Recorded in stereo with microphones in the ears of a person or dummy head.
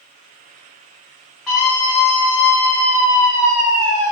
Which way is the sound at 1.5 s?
Centre (ahead or behind).